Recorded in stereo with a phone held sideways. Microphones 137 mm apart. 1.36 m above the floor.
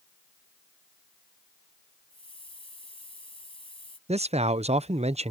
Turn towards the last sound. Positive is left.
turn(degrees=-50)  # may be behind; listen again after turning